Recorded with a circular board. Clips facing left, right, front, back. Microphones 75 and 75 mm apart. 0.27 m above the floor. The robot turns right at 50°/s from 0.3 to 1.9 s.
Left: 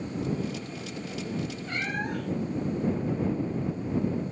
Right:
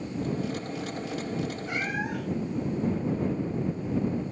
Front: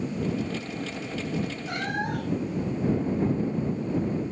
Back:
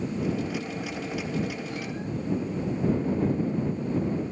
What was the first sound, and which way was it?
A cat meowing, 15° right.